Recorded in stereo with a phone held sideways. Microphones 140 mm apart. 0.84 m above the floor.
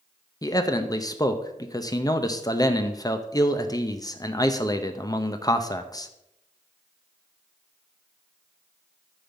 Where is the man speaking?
25° left (ahead or behind), 0.7 m.